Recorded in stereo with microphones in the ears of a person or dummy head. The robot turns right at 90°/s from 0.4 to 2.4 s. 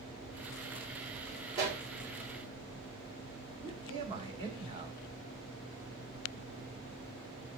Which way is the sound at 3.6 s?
25° right (ahead or behind).